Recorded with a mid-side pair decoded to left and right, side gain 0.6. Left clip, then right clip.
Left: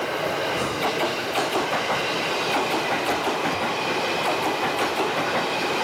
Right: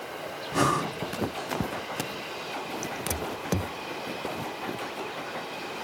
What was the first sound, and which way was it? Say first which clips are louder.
Breathing: left 2 dB; 65° right.